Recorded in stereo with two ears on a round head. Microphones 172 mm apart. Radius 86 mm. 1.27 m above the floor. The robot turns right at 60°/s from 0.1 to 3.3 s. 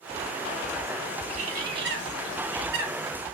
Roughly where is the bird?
Behind right.